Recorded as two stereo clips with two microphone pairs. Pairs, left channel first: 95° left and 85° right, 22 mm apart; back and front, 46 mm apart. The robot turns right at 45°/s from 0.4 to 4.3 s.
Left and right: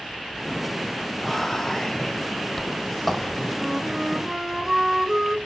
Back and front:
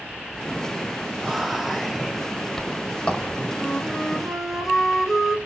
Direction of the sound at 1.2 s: 65° left.